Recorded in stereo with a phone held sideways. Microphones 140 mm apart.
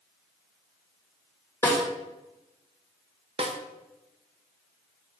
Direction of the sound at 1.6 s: 20° left (ahead or behind).